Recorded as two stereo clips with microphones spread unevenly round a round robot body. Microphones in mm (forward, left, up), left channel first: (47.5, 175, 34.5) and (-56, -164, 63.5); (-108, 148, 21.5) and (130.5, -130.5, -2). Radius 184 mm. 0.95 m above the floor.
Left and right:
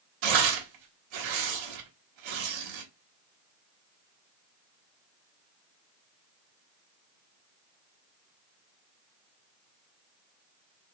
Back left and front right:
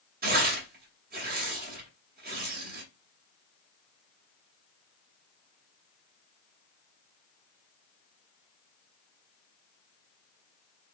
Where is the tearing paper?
115° right, 1.4 m.